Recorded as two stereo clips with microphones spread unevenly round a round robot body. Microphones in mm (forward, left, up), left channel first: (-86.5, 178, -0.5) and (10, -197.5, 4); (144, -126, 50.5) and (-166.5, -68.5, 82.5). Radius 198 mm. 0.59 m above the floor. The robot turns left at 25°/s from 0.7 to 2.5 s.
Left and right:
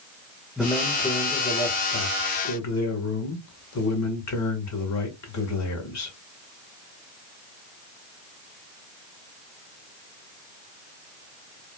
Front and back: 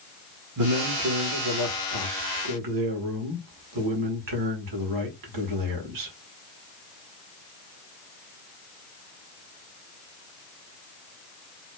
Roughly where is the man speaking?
Behind.